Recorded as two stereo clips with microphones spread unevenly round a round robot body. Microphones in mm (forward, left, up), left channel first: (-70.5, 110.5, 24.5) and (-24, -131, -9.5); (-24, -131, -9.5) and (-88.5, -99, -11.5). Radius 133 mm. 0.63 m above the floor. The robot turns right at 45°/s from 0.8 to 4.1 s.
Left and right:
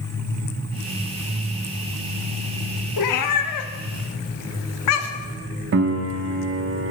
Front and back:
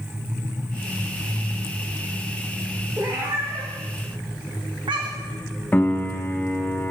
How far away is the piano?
About 0.5 m.